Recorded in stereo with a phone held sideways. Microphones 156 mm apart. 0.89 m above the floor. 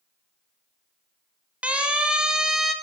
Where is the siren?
10° right (ahead or behind), 6 m; by 2.7 s centre (ahead or behind), 6 m.